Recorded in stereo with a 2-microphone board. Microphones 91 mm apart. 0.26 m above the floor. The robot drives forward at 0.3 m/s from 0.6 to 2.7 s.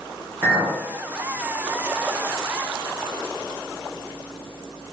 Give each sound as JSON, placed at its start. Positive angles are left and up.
{"t": 0.4, "sound": "a clink", "side_deg": -30, "distance_m": 1.4}